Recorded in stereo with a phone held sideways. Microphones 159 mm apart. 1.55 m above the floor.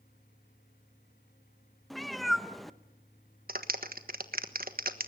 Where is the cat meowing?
Centre (ahead or behind), 0.7 m.